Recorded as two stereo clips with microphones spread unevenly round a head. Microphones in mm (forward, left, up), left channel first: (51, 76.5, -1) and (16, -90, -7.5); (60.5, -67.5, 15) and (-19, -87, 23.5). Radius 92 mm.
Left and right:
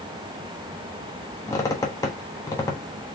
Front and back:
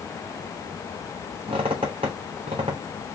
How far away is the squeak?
About 1.0 m.